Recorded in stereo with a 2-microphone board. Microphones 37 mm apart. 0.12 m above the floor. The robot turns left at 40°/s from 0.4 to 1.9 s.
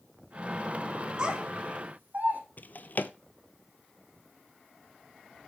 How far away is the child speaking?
About 3 m.